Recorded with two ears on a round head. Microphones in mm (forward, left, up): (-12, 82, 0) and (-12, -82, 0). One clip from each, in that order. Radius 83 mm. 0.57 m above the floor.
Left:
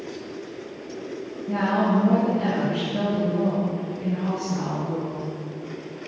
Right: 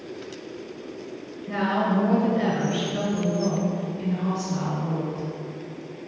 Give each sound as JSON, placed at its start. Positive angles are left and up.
{"t": 1.5, "sound": "a woman speaking", "side_deg": -60, "distance_m": 2.5}